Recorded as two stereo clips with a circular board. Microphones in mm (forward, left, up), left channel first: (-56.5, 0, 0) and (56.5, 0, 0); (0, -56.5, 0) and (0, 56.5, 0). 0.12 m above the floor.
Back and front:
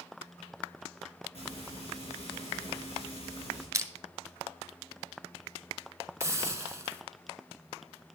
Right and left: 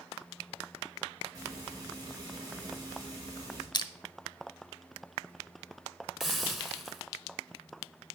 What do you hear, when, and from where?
1.3 s frying: 150° left, 6 m
3.7 s crushing: 55° right, 0.6 m
6.2 s a hiss: 5° left, 0.8 m